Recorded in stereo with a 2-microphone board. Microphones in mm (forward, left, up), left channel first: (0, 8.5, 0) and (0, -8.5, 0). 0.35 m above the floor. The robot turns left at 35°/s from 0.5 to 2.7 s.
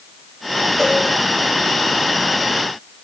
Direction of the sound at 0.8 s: 10° left (ahead or behind).